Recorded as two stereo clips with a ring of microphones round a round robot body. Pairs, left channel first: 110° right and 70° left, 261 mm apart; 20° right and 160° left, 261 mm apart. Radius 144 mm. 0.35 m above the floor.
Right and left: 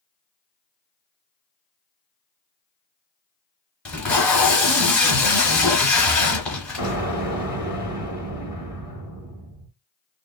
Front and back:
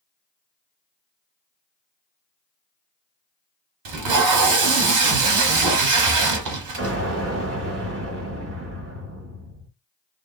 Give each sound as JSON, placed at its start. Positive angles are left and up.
{"t": 3.9, "sound": "tape being pulled", "azimuth_deg": 160, "distance_m": 1.2}
{"t": 6.8, "sound": "an explosion", "azimuth_deg": 135, "distance_m": 1.9}